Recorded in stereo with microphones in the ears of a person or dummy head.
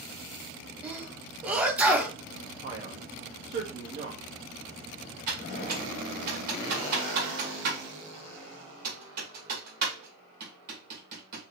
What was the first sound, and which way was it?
A sneeze, 5° right (ahead or behind).